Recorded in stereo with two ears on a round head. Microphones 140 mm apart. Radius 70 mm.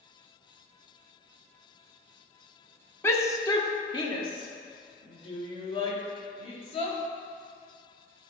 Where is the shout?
15° left (ahead or behind), 0.8 m; by 7.0 s 40° left (ahead or behind), 2.5 m.